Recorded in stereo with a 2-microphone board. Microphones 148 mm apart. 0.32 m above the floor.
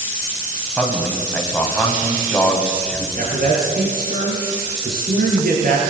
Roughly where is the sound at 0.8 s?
Centre.